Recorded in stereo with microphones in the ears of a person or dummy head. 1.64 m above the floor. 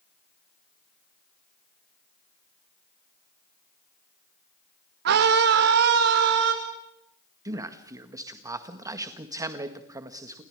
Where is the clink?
No clink in this recording.